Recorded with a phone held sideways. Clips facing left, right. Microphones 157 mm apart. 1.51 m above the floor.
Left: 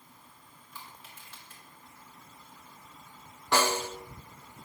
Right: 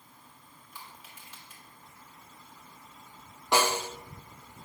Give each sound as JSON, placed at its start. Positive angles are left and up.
{"t": 0.7, "sound": "crushing", "side_deg": -15, "distance_m": 3.0}
{"t": 3.5, "sound": "a snare drum", "side_deg": -15, "distance_m": 0.8}